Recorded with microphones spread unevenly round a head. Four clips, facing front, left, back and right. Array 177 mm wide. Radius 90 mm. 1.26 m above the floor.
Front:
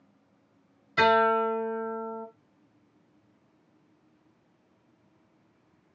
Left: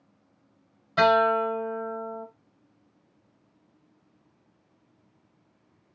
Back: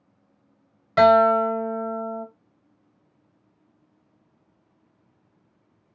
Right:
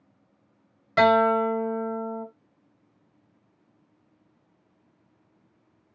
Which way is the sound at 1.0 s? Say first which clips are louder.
Right 2 dB, back 7 dB; 140° right.